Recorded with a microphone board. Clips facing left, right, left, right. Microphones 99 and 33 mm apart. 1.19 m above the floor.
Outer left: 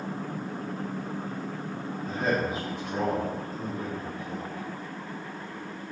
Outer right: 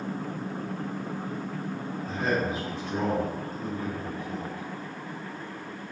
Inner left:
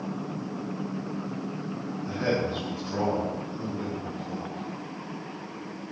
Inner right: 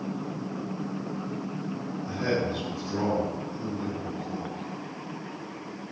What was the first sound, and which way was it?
A man speaking, 45° left (ahead or behind).